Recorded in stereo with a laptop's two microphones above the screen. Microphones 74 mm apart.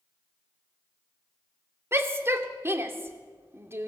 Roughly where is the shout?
Right.